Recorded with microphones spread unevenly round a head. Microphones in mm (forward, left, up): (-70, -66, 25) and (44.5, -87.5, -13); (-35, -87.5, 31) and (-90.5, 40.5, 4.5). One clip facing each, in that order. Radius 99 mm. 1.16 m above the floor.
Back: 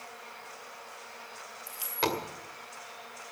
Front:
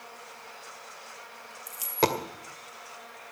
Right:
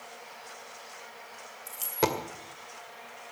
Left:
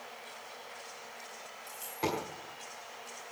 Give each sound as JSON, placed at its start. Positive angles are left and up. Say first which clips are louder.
{"t": 1.7, "sound": "a dropped coin", "louder": "front 5 dB, right 6 dB", "azimuth_deg": -60, "distance_m": 2.0}